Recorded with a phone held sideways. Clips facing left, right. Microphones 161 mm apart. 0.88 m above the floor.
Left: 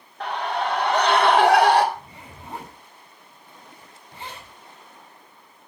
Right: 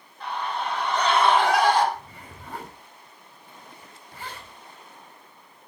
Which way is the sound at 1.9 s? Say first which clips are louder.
Left 1 dB; 20° left (ahead or behind).